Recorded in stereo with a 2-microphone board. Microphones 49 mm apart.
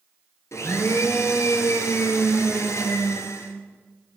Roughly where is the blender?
Left.